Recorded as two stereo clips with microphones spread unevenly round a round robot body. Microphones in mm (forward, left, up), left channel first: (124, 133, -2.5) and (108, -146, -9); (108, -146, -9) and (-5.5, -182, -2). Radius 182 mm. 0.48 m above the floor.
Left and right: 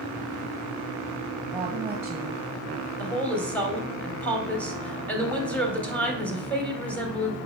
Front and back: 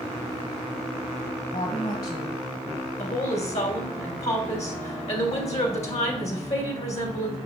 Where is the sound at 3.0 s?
Straight ahead, 3 m.